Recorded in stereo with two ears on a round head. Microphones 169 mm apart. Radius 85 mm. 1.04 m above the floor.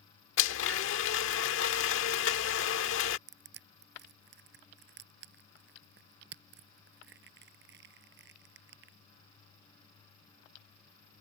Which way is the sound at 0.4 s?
75° left (ahead or behind).